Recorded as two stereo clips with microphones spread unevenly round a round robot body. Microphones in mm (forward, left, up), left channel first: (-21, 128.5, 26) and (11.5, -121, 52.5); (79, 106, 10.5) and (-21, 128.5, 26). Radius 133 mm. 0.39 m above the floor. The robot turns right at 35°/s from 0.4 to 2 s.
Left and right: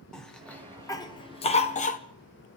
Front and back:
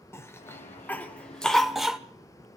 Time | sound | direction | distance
0.1 | a cough | 20° left | 1.4 m